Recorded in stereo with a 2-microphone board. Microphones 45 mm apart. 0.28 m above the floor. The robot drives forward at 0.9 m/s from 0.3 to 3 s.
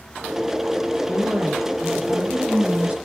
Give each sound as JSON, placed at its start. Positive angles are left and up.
{"t": 1.1, "sound": "a woman speaking", "side_deg": -25, "distance_m": 6.0}